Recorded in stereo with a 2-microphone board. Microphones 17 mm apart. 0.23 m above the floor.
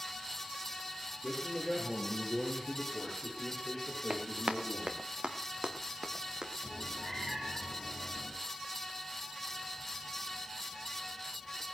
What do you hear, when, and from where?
1.2 s a man speaking: 15° left (ahead or behind), 7 m; by 5.0 s 40° left (ahead or behind), 8.5 m
4.1 s running footsteps: 75° right (ahead or behind), 1.7 m; by 6.5 s 35° right (ahead or behind), 3 m
6.6 s a cat meowing: 10° left (ahead or behind), 5 m